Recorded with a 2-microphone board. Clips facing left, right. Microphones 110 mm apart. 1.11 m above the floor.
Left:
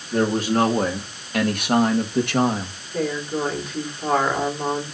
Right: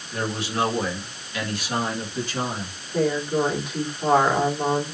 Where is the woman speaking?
10° right (ahead or behind), 3.5 m.